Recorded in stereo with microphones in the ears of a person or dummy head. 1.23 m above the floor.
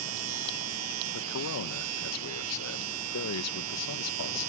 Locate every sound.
0.0 s a machine running: 85° right
1.1 s a man speaking: 85° left